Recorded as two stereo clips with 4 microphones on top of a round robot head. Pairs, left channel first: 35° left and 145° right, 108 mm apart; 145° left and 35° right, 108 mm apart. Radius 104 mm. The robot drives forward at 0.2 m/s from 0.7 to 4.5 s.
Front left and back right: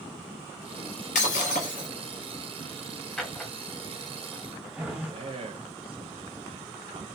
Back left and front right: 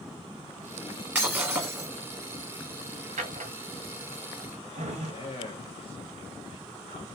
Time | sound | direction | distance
1.1 | breaking glass | 35° left | 1.7 m
3.2 | a drawer | 50° right | 1.2 m
5.0 | a man speaking | straight behind | 0.8 m